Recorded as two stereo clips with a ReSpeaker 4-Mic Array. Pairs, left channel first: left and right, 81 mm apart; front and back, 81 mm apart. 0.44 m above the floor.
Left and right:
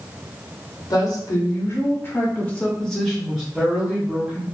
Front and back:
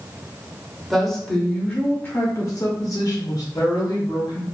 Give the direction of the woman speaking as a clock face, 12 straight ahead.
9 o'clock.